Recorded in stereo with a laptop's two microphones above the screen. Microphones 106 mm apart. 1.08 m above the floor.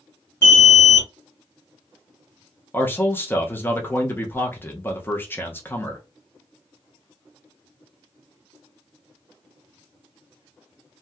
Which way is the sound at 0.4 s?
25° left (ahead or behind).